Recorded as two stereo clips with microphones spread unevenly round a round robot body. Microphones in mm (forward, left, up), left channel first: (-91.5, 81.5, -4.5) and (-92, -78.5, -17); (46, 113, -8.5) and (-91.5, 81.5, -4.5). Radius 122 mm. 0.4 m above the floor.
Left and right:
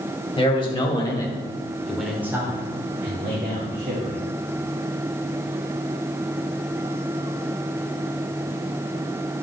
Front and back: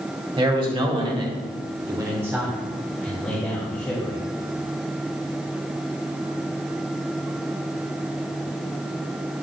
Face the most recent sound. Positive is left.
turn(degrees=-55)